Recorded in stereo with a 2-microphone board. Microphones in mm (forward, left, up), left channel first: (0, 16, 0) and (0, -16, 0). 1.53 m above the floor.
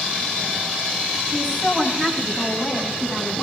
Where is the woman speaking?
15° left (ahead or behind), 9.5 m; by 3.4 s 25° left (ahead or behind), 12 m.